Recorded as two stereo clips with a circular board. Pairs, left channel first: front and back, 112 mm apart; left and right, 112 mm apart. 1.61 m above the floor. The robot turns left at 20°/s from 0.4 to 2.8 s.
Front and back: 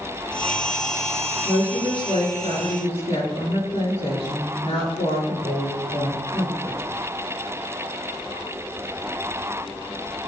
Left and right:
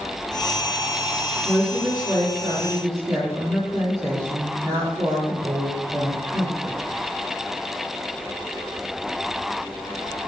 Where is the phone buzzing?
No phone buzzing in this recording.